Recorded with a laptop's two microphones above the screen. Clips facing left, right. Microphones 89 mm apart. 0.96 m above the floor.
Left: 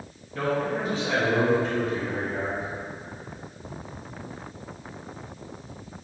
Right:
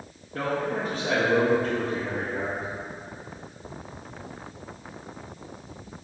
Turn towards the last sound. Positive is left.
turn(degrees=-60)  # may be behind; listen again after turning